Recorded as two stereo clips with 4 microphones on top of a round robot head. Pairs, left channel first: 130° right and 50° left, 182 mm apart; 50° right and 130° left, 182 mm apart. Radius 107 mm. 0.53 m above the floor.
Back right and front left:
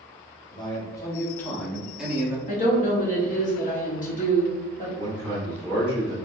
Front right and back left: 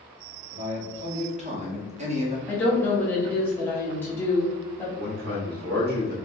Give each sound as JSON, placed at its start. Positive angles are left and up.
{"t": 0.5, "sound": "a man speaking", "azimuth_deg": 170, "distance_m": 1.6}
{"t": 2.5, "sound": "a woman speaking", "azimuth_deg": -125, "distance_m": 1.3}
{"t": 5.0, "sound": "a man speaking", "azimuth_deg": 155, "distance_m": 1.7}